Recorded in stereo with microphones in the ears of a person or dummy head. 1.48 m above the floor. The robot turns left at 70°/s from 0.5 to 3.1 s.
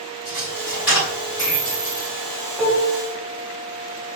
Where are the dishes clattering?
10° right (ahead or behind), 0.7 m; by 3.0 s 10° left (ahead or behind), 0.7 m.